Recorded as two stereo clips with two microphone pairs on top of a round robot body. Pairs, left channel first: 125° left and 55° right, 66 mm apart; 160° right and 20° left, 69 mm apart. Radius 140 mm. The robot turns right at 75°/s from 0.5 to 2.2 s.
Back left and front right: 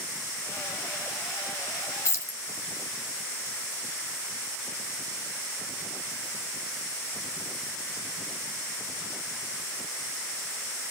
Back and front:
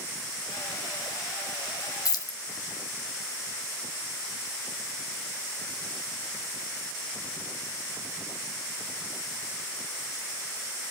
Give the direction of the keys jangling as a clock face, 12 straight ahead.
6 o'clock.